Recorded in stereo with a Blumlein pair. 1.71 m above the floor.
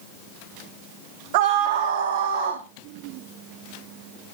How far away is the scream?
About 1.0 m.